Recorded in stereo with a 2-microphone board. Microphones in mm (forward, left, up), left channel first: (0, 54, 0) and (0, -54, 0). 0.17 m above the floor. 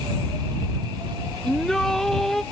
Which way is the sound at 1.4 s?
5° left (ahead or behind).